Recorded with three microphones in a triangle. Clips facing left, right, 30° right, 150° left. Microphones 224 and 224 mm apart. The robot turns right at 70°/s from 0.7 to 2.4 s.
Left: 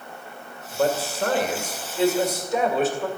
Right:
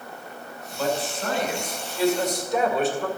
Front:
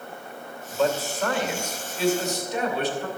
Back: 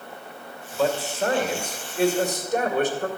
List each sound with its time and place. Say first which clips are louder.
0.7 s a man speaking: left 3 dB, even; 60° left, 2 m; by 3.1 s straight behind, 2 m